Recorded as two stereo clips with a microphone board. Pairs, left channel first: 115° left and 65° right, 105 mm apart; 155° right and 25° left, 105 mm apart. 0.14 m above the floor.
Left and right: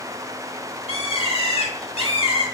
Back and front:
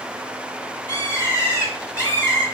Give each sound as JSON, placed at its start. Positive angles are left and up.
{"t": 0.9, "sound": "a bird", "azimuth_deg": 140, "distance_m": 4.0}